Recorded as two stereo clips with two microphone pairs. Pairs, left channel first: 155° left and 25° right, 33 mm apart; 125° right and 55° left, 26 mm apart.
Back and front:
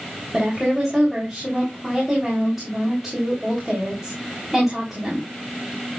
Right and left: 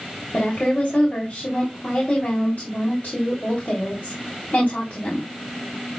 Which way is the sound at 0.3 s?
100° right.